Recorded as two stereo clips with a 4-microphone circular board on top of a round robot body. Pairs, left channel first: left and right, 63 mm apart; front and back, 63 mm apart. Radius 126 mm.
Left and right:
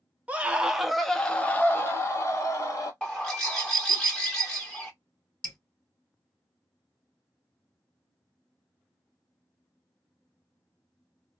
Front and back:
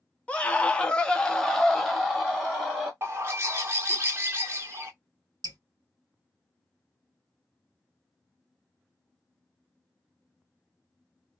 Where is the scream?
50° right, 0.9 m; by 2.9 s 95° left, 1.3 m.